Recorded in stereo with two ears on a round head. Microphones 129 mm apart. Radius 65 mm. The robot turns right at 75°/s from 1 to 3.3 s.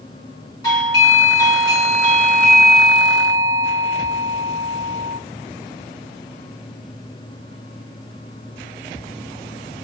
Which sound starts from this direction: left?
A doorbell, at 0.6 s.